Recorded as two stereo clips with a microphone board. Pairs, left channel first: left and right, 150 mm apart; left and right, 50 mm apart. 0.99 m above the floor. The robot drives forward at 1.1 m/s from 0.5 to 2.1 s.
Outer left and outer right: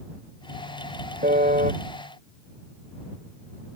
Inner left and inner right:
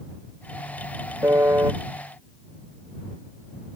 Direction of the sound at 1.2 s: 80° right.